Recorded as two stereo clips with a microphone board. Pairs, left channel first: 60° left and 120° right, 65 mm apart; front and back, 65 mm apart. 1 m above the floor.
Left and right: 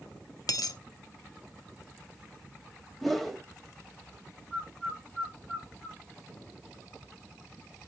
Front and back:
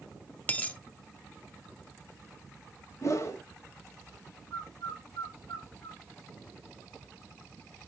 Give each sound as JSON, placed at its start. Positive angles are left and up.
{"t": 0.5, "sound": "a dropped coin", "azimuth_deg": 65, "distance_m": 0.9}
{"t": 3.0, "sound": "a whoosh", "azimuth_deg": -25, "distance_m": 1.2}
{"t": 4.5, "sound": "a bird", "azimuth_deg": -15, "distance_m": 3.5}